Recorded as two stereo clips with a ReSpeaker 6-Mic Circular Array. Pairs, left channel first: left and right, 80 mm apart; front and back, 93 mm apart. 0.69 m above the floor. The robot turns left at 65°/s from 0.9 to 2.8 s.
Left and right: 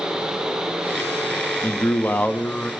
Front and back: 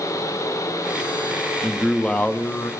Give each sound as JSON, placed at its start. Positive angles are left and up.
{"t": 1.6, "sound": "a man speaking", "azimuth_deg": 90, "distance_m": 0.7}